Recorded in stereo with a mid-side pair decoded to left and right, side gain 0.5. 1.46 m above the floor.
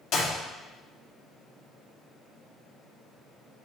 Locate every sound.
0.1 s a clap: 65° left, 3 m